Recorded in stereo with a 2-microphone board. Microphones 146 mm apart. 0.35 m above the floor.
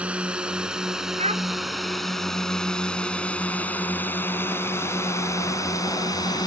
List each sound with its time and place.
0.0 s a drone: 10° right (ahead or behind); by 6.5 s 25° left (ahead or behind)
1.2 s a child speaking: 45° right (ahead or behind)